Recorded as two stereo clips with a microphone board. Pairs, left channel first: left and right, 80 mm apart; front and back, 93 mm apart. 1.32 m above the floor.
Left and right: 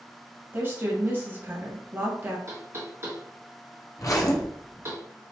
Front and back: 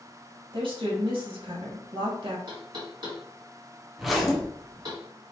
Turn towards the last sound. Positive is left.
turn(degrees=90)